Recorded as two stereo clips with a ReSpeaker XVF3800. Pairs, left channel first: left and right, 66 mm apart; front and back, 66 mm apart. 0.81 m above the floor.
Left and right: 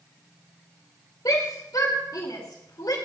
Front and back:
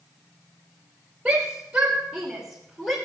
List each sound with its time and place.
1.2 s a shout: 100° left, 4 m; by 3.0 s 85° left, 3 m